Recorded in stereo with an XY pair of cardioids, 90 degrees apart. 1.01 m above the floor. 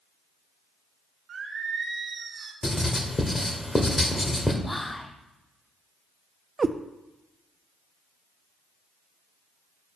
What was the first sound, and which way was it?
Singing, 55° right.